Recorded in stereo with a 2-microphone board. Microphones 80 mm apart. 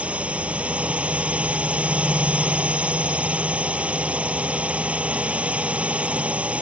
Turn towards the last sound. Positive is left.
turn(degrees=-15)  # may be behind; listen again after turning